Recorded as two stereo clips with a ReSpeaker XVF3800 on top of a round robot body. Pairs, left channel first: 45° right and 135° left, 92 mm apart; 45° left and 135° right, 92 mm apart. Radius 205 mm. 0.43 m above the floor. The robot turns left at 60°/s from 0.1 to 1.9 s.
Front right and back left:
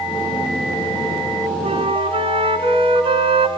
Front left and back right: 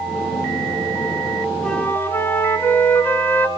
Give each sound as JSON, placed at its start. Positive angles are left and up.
{"t": 1.6, "sound": "a flute", "azimuth_deg": 130, "distance_m": 2.5}